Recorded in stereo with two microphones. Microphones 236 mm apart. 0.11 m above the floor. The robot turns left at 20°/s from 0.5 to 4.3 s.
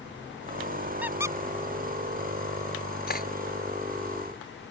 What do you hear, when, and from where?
1.0 s a squeak: 5° right (ahead or behind); by 1.4 s 15° right (ahead or behind)
3.1 s cutlery clinking: 40° left (ahead or behind)